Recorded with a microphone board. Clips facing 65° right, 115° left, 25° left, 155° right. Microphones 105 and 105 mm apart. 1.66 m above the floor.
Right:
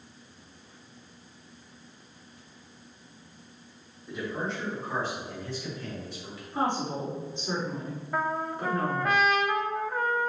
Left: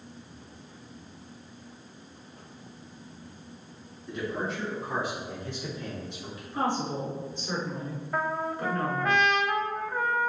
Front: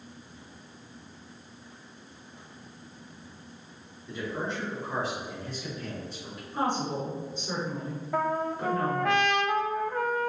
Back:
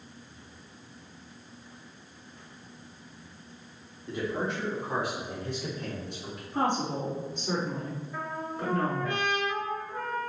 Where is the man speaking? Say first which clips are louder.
Left 1 dB, back 2 dB; 155° right, 4 m; by 6.4 s straight behind, 6 m.